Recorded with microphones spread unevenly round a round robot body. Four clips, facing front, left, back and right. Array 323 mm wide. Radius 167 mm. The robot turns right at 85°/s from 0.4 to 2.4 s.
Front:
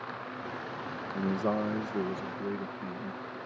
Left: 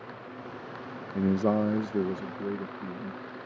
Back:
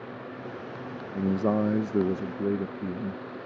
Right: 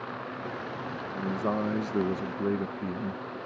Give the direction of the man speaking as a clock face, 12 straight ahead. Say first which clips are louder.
Left 5 dB, back 5 dB; 8 o'clock.